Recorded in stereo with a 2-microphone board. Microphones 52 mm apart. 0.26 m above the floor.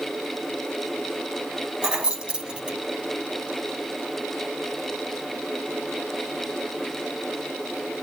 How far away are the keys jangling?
About 1.2 m.